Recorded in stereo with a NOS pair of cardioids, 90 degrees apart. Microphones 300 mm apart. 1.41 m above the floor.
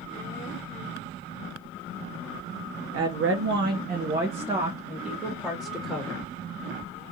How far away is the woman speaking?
About 1.0 m.